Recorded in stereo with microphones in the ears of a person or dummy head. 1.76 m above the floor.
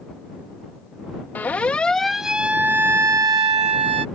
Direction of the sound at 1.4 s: 10° left (ahead or behind).